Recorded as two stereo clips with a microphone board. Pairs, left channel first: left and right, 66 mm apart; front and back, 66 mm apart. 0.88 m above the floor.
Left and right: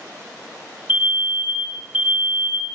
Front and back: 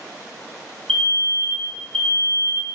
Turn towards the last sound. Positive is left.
turn(degrees=-60)